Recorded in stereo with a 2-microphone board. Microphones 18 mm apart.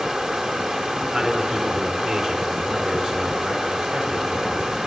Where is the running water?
45° right (ahead or behind), 2 m.